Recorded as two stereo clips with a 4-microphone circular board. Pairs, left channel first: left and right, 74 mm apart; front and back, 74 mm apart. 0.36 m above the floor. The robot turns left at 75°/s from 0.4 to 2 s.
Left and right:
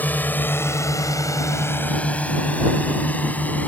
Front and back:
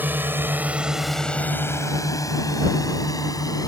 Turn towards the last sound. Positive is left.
turn(degrees=25)